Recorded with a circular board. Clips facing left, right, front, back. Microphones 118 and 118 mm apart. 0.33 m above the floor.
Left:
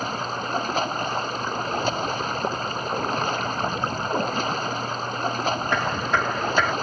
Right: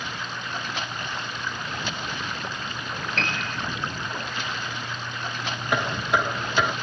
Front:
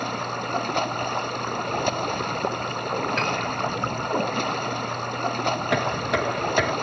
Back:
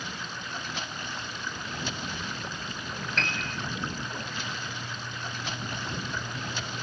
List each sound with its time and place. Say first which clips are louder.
0.0 s running water: left 6 dB, front 11 dB; 40° left
3.2 s a piano: left 5 dB, front 8 dB; 85° right
5.7 s knocking: left 1 dB, front 12 dB; 10° right